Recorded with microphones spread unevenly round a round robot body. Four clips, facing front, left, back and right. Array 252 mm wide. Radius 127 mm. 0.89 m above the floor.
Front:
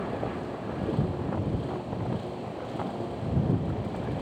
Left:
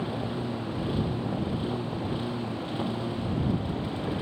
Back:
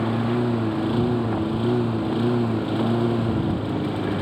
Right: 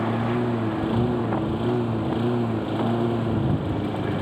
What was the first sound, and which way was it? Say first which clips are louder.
A lawn mower: right 8 dB, back 10 dB; 160° right.